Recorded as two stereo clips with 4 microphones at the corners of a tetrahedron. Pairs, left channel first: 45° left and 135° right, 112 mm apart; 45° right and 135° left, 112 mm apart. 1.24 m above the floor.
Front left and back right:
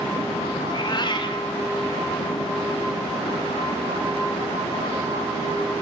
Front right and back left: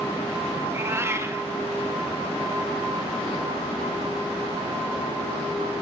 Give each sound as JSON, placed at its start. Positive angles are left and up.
{"t": 0.6, "sound": "a cat meowing", "azimuth_deg": 75, "distance_m": 0.8}